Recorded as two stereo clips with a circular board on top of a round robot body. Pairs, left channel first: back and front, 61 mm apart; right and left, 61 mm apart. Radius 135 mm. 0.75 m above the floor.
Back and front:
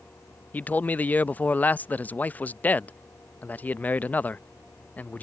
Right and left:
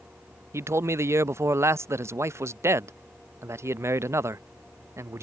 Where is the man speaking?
120° left.